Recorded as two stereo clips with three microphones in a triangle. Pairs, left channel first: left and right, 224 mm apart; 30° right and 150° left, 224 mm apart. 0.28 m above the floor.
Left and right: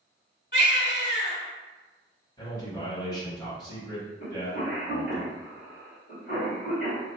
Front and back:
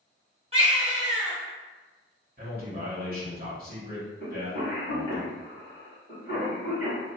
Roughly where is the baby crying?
Left.